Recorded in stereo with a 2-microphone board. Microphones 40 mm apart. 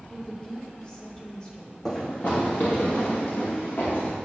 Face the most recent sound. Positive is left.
turn(degrees=60)  # may be behind; listen again after turning